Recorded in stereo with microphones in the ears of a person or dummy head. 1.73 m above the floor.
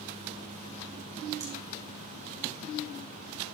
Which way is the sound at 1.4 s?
20° right (ahead or behind).